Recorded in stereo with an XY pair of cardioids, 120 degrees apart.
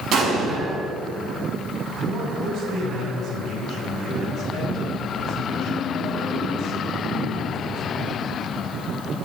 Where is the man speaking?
70° right, 5.5 m.